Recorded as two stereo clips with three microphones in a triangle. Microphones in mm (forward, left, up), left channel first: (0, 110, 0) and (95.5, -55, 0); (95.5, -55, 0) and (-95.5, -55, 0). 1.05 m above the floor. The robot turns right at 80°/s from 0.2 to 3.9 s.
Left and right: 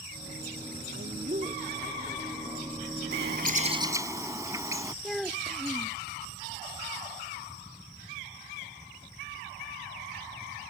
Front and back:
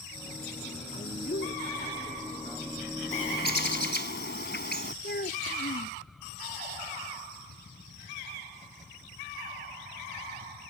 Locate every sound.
0.9 s a woman speaking: 50° right; by 2.7 s 95° left
3.1 s a bird: 50° right; by 4.9 s 15° left
5.0 s a child speaking: 30° left